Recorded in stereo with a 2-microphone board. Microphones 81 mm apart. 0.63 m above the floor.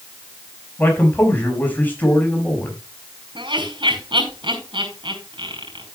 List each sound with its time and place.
0.8 s a man speaking: 25° left (ahead or behind), 5.5 m
3.4 s laughter: 80° right, 5.5 m